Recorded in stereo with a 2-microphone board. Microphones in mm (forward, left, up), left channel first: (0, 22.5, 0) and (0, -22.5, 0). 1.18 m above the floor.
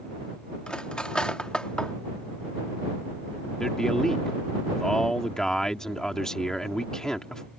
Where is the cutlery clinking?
20° left (ahead or behind).